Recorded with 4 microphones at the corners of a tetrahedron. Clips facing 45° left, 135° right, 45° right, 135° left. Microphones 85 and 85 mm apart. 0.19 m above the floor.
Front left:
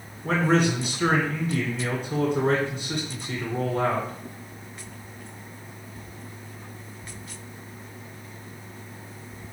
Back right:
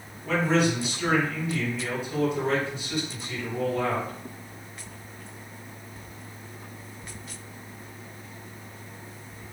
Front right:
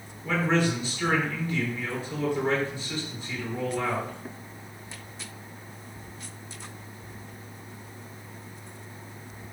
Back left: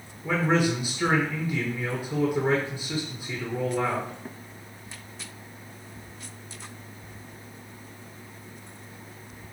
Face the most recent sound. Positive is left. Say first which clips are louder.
# front left 2 dB, back left 1 dB
turn(degrees=75)